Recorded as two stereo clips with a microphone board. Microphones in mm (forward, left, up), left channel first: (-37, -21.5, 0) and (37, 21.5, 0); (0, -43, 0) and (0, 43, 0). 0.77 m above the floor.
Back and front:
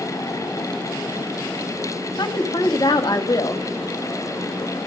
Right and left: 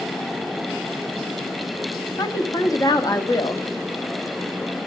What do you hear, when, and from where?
2.2 s a woman speaking: 125° right, 1.4 m